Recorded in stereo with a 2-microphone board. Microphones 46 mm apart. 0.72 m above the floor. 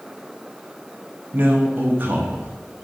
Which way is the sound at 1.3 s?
50° right (ahead or behind).